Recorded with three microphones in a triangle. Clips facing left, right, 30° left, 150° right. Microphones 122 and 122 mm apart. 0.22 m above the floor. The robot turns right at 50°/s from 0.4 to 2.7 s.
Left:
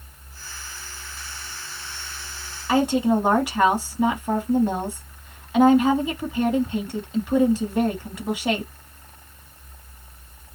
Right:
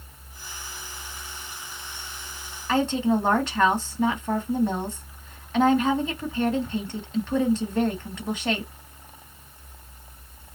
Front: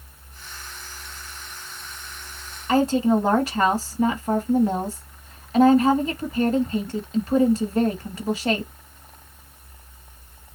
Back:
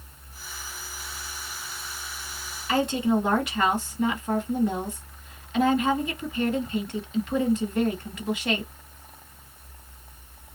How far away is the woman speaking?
About 1.6 m.